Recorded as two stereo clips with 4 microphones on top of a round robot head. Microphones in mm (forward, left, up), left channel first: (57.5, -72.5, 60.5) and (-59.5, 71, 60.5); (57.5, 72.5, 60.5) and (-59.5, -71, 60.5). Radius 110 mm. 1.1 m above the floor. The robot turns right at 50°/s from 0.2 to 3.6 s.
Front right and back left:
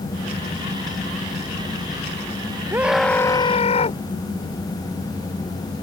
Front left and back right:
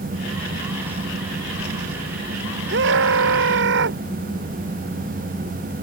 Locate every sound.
2.7 s a scream: 155° right; by 4.0 s 110° right